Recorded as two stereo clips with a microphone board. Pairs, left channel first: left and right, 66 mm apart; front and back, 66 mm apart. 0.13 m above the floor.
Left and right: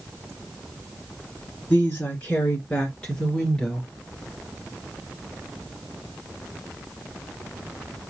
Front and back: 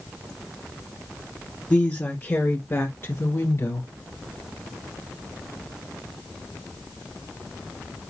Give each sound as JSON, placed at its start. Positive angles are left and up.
{"t": 1.7, "sound": "a woman speaking", "azimuth_deg": 50, "distance_m": 1.9}